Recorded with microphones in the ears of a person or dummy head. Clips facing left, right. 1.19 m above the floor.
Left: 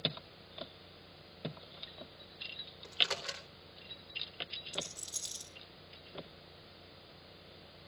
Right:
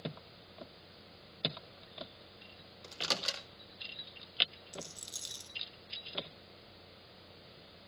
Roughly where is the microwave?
Right.